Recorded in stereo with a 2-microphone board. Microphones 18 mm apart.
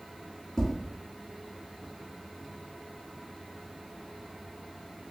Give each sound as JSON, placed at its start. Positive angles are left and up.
{"t": 0.6, "sound": "tapping", "side_deg": 50, "distance_m": 1.2}